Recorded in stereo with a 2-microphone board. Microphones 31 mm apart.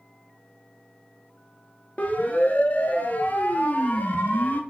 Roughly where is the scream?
I don't hear a scream.